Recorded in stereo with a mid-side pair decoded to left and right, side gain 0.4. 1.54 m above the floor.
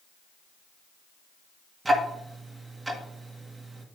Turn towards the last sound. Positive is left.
turn(degrees=-30)